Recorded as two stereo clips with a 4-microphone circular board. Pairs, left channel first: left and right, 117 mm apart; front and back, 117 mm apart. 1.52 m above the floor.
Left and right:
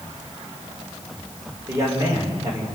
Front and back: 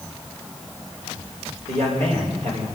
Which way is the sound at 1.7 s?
155° right.